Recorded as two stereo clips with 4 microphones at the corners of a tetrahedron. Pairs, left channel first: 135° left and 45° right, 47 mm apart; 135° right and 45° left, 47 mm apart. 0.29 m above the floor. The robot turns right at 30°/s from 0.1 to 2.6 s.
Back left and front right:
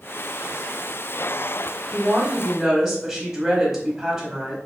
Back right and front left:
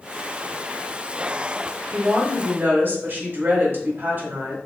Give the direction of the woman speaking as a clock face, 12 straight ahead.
12 o'clock.